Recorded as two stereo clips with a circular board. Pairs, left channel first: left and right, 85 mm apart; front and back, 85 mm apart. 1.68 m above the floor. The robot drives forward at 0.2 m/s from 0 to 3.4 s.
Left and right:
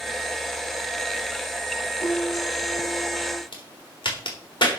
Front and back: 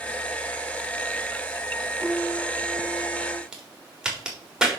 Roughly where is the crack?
Left.